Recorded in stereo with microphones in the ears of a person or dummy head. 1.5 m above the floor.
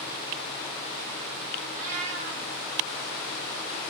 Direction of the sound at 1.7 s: 45° right (ahead or behind).